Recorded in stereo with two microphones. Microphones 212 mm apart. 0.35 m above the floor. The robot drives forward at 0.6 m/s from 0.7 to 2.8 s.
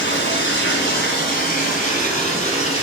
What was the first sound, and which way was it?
Running water, 55° left (ahead or behind).